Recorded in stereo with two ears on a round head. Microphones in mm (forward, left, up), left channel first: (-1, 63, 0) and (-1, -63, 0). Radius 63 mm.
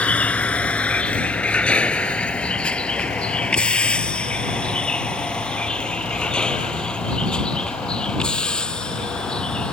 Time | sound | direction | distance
0.0 | a vehicle | 10° left (ahead or behind) | ?